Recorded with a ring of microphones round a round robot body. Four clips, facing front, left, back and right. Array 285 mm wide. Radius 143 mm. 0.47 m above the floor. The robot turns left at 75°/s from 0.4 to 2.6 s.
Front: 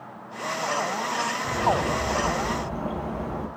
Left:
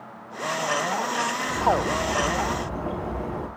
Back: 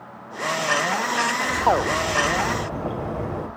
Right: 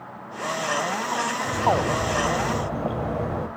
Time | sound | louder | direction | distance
1.4 | a bird | right 1 dB, back 3 dB | 30° right | 2.5 m